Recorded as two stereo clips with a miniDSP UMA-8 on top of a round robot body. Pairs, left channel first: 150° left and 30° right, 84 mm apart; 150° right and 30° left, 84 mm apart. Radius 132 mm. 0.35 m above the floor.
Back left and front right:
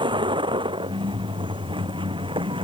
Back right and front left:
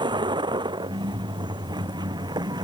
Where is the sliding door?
I don't hear a sliding door.